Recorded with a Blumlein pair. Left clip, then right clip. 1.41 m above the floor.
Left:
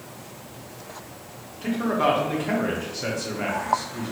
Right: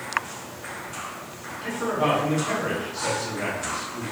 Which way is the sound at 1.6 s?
25° left.